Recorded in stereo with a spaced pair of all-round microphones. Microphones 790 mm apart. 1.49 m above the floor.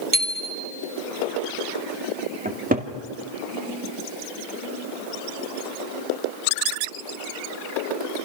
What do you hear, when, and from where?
0.1 s a bicycle bell: 25° right (ahead or behind), 2 m
2.5 s a cupboard door: 10° right (ahead or behind), 2 m